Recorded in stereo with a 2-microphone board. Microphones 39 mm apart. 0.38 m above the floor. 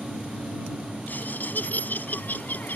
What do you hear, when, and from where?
1.1 s laughter: 55° left (ahead or behind)